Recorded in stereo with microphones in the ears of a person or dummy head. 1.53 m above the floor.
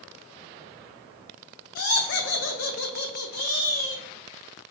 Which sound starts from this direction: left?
Laughter, at 1.8 s.